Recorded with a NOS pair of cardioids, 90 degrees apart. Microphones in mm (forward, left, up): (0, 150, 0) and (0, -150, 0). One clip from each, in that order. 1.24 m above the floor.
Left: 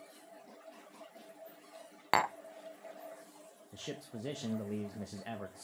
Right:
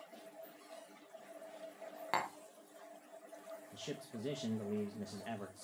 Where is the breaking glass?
I don't hear breaking glass.